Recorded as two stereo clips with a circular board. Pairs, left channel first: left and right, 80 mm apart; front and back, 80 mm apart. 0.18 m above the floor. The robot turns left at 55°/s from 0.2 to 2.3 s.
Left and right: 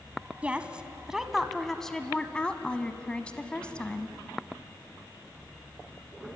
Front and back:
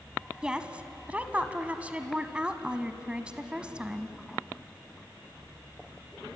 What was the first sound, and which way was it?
A woman speaking, 120° right.